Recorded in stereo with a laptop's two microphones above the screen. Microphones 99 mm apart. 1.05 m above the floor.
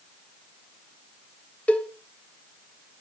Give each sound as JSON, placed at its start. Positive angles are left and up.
{"t": 1.7, "sound": "a cowbell", "side_deg": 15, "distance_m": 1.3}